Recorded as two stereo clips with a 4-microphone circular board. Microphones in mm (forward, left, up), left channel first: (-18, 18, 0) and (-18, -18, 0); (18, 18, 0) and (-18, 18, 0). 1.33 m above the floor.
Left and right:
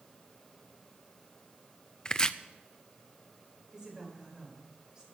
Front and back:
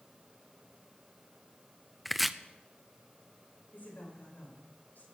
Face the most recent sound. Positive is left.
turn(degrees=-25)